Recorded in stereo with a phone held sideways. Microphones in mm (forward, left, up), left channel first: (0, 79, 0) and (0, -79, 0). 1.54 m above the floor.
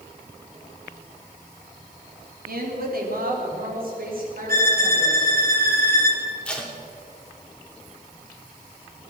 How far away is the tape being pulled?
About 2 m.